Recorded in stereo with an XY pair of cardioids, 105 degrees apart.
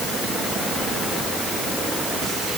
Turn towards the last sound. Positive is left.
No sound to turn to.